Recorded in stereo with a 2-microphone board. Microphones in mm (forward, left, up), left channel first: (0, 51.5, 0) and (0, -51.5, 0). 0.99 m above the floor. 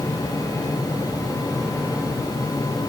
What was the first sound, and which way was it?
Only background noise.